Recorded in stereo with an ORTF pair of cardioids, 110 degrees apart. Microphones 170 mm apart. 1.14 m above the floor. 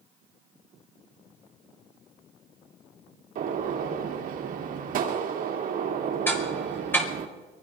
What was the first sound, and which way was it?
A gunshot, 55° right.